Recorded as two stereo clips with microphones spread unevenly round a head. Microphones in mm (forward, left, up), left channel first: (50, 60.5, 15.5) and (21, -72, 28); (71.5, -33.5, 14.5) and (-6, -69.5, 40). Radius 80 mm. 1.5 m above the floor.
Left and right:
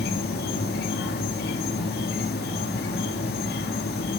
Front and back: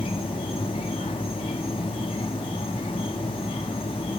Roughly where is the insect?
Left.